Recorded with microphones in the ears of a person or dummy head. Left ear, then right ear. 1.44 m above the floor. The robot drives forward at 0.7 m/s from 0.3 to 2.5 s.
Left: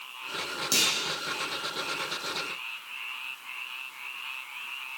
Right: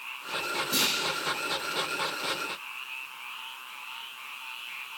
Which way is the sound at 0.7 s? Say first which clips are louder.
Left 3 dB; 90° left.